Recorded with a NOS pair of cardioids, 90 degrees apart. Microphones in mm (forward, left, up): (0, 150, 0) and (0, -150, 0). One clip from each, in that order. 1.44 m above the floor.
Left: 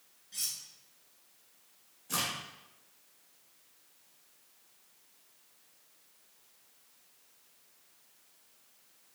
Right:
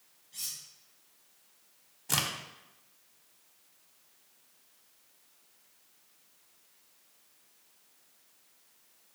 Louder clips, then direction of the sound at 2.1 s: Right 3 dB; 70° right.